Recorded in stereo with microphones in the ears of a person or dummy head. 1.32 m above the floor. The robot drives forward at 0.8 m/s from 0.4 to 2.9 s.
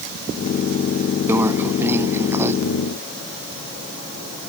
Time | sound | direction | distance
1.3 | a microwave | 10° right (ahead or behind) | ?